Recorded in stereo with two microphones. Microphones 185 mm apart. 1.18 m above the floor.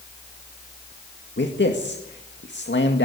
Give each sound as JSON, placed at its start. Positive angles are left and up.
{"t": 1.4, "sound": "a man speaking", "side_deg": 75, "distance_m": 2.0}